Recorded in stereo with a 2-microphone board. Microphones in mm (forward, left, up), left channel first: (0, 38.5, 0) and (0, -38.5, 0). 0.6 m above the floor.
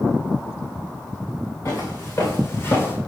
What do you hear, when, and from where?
1.6 s footsteps: 40° left (ahead or behind), 3.5 m; by 3.0 s 30° left (ahead or behind), 1.9 m